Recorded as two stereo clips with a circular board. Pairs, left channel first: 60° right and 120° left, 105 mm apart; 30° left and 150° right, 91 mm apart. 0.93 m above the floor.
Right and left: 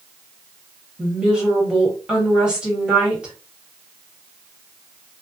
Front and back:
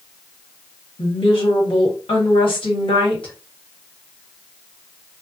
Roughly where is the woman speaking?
Ahead left.